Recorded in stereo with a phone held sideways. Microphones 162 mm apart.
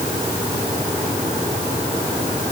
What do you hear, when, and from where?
Only background noise.